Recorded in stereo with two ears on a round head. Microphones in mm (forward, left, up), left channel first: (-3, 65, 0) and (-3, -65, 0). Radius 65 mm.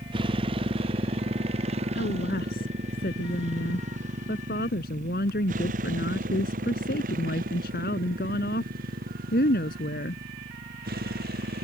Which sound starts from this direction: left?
A woman speaking, at 1.9 s.